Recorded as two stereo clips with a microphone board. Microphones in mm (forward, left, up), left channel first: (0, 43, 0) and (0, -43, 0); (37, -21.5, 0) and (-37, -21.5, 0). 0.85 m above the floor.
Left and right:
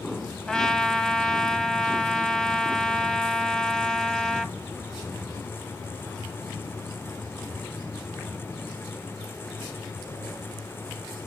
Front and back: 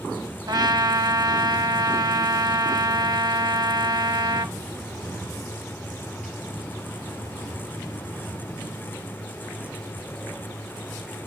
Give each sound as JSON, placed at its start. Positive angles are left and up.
{"t": 0.5, "sound": "a trumpet", "azimuth_deg": 170, "distance_m": 0.8}